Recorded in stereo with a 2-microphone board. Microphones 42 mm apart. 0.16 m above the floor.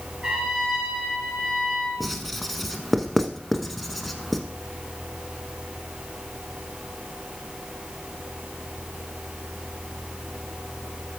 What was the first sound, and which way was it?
A trumpet, 15° right (ahead or behind).